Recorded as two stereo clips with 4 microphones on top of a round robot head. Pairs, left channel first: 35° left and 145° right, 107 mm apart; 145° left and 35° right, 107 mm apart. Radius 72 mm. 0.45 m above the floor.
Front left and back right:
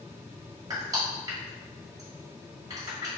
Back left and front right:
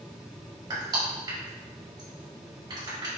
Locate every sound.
0.7 s crushing: 85° right, 1.9 m